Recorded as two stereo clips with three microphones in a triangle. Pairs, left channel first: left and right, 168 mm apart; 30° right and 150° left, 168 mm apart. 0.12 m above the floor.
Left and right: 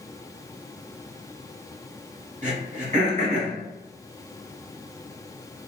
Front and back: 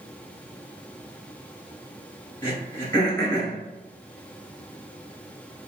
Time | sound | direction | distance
2.4 | throat clearing | 95° right | 1.6 m